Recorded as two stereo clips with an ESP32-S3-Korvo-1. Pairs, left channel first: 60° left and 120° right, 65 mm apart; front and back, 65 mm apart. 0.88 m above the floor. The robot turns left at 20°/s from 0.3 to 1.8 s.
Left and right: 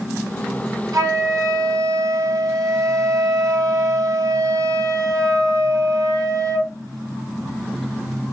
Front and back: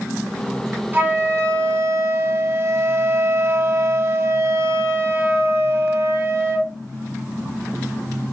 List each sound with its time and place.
0.9 s a flute: 125° right, 2.5 m; by 6.7 s 140° right, 2.5 m